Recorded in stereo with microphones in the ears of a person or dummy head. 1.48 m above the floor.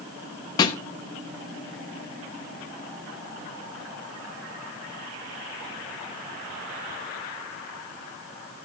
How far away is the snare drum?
About 1.0 m.